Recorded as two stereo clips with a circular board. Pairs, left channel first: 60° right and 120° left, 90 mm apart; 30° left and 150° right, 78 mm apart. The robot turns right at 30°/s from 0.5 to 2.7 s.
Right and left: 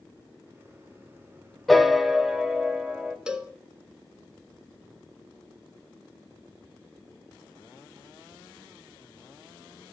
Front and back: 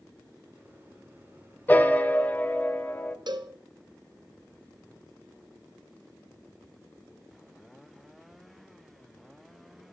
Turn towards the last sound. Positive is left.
turn(degrees=-160)